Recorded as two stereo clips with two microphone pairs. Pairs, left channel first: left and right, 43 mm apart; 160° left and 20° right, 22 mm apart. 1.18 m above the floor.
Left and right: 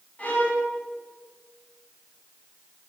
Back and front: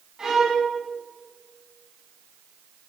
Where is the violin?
35° left, 9.5 m.